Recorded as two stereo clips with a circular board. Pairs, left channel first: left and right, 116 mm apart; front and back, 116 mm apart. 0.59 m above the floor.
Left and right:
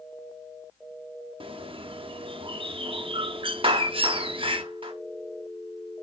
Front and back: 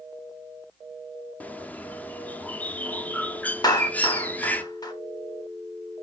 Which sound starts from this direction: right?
A bird, at 1.4 s.